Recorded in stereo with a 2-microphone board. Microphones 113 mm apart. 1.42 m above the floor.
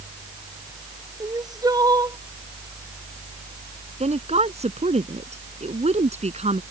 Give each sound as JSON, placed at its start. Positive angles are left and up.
{"t": 1.2, "sound": "crying", "side_deg": -35}
{"t": 4.0, "sound": "a woman speaking", "side_deg": -75}